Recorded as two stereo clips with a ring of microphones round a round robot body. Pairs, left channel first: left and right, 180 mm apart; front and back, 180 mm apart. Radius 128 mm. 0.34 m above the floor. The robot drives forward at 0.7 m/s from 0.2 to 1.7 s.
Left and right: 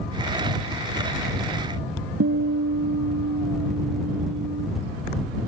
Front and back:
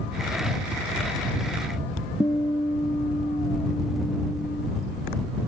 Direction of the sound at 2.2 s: 75° right.